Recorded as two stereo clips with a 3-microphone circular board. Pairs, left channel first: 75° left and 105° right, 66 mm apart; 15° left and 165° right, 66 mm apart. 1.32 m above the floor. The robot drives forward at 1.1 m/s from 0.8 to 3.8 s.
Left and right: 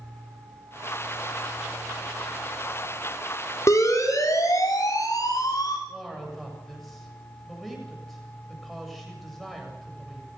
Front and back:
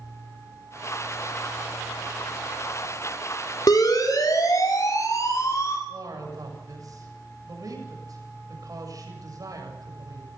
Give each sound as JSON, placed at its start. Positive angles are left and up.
{"t": 3.7, "sound": "a siren", "azimuth_deg": 35, "distance_m": 5.5}
{"t": 5.9, "sound": "a man speaking", "azimuth_deg": 160, "distance_m": 7.5}